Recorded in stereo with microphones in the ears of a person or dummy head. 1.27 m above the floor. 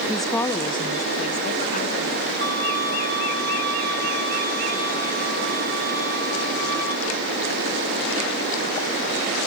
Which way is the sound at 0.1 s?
5° right (ahead or behind).